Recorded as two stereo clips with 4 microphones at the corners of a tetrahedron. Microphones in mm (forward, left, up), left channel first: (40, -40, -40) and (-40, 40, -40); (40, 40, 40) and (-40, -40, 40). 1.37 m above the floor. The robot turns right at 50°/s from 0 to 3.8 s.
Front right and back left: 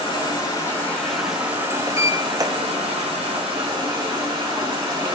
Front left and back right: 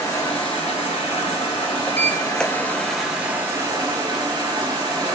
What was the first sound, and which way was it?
Running water, 15° right.